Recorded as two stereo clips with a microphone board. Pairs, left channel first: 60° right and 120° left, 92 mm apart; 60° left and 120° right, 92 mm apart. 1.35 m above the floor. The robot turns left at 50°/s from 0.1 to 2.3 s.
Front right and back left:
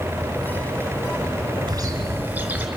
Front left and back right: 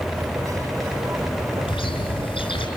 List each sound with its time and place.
1.7 s a bird: 75° left, 4 m; by 2.7 s 45° left, 4 m